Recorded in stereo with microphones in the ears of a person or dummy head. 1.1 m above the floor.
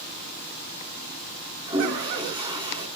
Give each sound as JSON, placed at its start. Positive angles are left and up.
{"t": 1.7, "sound": "a toilet flushing", "side_deg": -20, "distance_m": 5.5}